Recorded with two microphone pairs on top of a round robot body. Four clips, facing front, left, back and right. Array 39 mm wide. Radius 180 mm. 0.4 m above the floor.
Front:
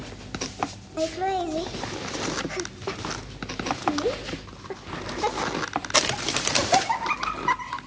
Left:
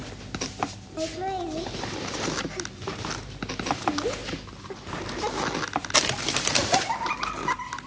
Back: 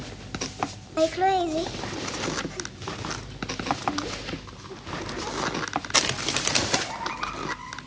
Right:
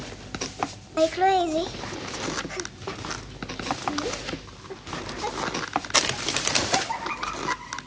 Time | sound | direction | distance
1.0 | laughter | 125° right | 1.1 m